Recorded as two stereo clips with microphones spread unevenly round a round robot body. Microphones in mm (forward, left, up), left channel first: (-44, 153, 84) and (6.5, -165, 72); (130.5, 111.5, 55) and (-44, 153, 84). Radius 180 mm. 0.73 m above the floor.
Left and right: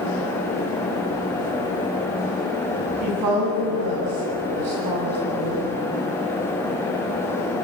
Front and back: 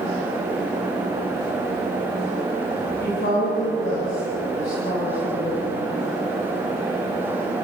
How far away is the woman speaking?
About 8 m.